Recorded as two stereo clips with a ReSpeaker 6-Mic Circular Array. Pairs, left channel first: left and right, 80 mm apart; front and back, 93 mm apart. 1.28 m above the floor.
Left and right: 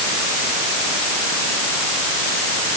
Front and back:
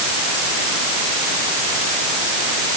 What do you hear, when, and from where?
Only background noise.